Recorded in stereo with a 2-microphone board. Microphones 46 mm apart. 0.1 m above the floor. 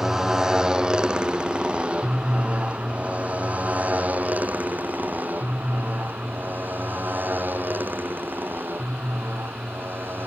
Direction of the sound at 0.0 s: 10° right (ahead or behind).